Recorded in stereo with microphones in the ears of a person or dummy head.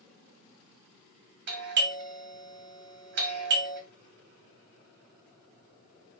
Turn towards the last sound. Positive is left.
turn(degrees=-50)  # may be behind; listen again after turning